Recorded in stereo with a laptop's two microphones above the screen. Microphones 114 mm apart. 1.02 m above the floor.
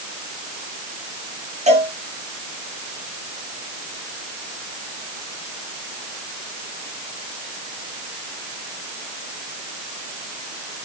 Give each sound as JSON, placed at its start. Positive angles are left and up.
{"t": 1.7, "sound": "a cowbell", "side_deg": -70, "distance_m": 4.5}